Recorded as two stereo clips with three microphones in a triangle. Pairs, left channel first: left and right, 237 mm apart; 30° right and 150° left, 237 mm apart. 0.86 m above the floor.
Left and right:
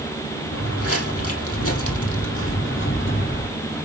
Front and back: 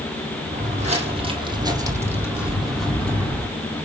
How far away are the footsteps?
About 2 m.